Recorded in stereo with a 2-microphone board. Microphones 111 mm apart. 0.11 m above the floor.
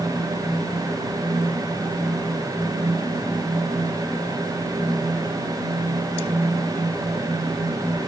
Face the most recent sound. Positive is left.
No sound to turn to.